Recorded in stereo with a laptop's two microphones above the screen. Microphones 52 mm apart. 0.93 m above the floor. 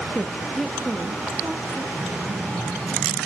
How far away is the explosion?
About 1.3 m.